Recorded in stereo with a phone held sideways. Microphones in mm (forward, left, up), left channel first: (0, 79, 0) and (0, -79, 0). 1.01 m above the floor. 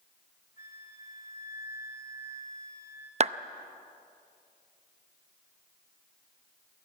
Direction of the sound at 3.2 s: 45° right (ahead or behind).